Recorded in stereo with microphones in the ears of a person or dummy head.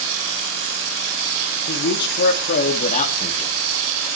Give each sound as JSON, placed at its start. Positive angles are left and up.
{"t": 1.7, "sound": "a man speaking", "side_deg": 65, "distance_m": 3.0}